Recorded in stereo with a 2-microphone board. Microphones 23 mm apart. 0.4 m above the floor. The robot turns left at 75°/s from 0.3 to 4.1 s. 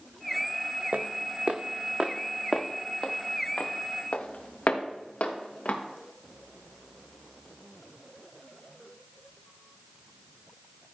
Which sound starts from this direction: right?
Footsteps, at 0.9 s.